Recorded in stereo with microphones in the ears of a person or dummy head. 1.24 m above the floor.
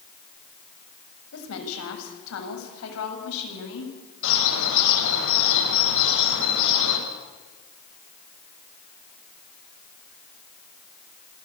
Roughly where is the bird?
Left.